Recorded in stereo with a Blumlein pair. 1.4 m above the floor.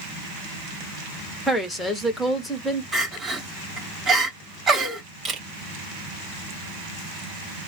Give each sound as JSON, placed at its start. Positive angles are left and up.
{"t": 1.5, "sound": "a woman speaking", "azimuth_deg": 5, "distance_m": 1.4}
{"t": 2.9, "sound": "crying", "azimuth_deg": -20, "distance_m": 2.5}
{"t": 5.2, "sound": "a camera shutter", "azimuth_deg": -20, "distance_m": 2.0}